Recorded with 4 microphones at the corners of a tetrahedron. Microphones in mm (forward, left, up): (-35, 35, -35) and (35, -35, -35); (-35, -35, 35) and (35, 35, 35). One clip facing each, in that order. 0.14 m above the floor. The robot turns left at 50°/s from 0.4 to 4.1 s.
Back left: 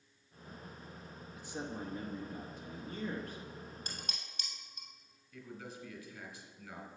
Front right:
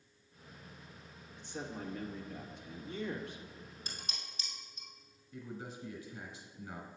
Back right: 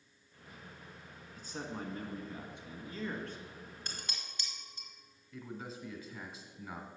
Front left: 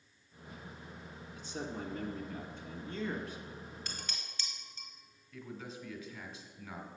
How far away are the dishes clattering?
About 1.9 m.